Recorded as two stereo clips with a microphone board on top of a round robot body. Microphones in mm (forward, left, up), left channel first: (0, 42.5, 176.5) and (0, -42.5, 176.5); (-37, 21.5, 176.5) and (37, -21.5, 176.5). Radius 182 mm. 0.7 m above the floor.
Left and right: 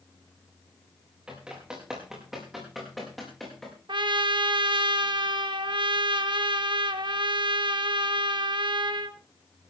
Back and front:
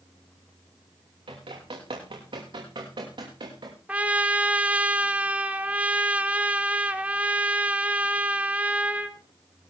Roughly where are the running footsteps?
Ahead.